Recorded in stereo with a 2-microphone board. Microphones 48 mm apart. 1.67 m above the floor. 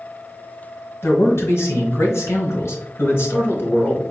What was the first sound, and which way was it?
A man speaking, 65° left (ahead or behind).